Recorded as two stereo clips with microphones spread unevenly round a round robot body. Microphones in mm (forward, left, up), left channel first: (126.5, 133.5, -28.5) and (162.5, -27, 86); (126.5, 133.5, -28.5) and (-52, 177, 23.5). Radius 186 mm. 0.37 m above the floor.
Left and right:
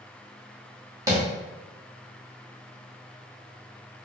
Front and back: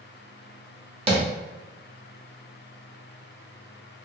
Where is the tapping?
130° left, 0.9 m.